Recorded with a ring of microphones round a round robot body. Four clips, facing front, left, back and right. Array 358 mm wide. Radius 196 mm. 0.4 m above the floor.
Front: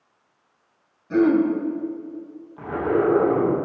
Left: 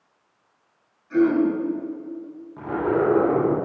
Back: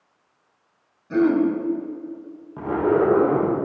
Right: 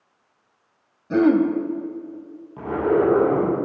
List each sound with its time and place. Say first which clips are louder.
1.1 s throat clearing: right 2 dB, front 1 dB; 90° right, 2 m
2.6 s a zipper: right 2 dB, back 2 dB; 165° right, 6 m